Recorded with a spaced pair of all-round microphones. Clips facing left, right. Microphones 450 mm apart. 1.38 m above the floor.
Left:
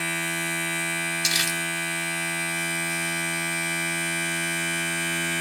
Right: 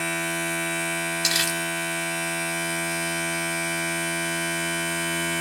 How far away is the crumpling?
About 0.8 m.